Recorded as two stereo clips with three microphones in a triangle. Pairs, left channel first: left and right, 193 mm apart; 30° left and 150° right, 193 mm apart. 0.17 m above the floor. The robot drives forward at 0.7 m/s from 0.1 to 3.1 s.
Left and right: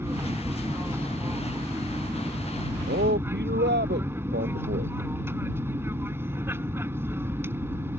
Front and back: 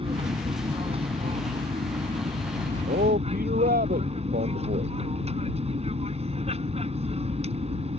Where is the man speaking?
110° right; by 5.0 s 115° right.